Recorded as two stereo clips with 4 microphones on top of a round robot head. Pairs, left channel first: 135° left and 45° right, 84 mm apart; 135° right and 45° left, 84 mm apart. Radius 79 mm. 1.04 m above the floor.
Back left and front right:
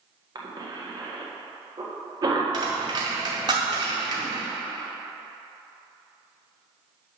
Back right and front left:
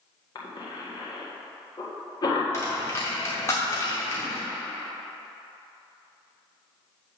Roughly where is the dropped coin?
Right.